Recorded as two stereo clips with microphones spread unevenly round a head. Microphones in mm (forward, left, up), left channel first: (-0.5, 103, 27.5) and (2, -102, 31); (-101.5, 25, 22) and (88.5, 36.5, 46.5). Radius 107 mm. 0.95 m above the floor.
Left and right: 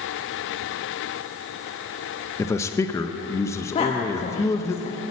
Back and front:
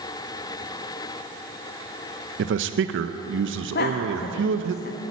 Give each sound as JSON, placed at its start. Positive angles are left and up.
{"t": 2.4, "sound": "a man speaking", "azimuth_deg": 15, "distance_m": 0.6}
{"t": 3.8, "sound": "a woman speaking", "azimuth_deg": 155, "distance_m": 1.1}